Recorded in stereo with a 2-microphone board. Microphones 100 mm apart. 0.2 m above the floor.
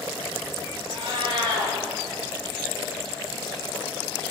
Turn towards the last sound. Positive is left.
turn(degrees=-50)  # may be behind; listen again after turning